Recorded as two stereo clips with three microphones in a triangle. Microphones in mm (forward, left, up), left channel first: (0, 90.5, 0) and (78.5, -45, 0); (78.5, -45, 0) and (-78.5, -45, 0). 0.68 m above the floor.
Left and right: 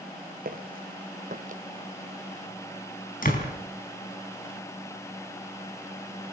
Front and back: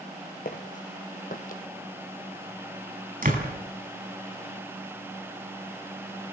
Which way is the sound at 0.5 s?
35° right.